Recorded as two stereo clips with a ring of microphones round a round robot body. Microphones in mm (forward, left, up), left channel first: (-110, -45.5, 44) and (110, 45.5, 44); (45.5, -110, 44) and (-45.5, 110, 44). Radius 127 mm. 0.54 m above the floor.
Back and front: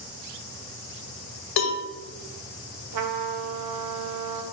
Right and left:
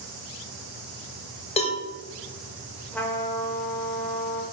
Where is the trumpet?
15° left, 0.6 m.